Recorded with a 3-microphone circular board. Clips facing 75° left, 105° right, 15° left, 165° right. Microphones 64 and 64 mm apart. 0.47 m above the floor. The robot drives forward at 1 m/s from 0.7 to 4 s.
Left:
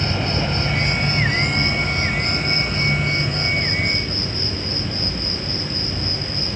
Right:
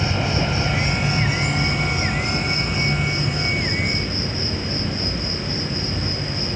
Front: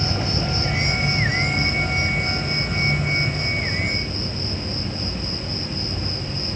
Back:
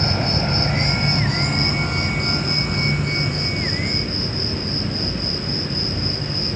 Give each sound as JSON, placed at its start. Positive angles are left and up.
{"t": 0.0, "sound": "an insect", "azimuth_deg": 170, "distance_m": 2.0}